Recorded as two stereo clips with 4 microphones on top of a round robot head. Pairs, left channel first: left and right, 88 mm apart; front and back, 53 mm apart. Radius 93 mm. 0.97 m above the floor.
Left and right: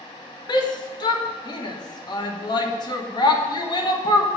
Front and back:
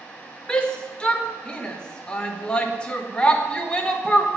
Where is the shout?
70° left, 1.5 m.